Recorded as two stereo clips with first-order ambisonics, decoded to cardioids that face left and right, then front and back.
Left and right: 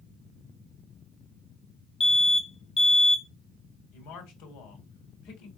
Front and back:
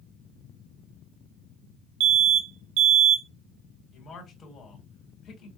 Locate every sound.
2.0 s an alarm: 160° left, 1.1 m
3.9 s a man speaking: 65° left, 3 m